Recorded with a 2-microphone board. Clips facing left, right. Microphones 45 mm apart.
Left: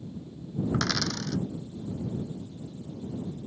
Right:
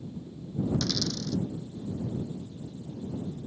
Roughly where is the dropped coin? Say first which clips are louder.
Left 2 dB; left.